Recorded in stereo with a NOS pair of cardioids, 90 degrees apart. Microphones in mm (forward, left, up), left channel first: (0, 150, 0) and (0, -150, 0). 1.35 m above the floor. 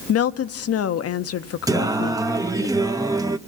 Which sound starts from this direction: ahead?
Singing, at 1.7 s.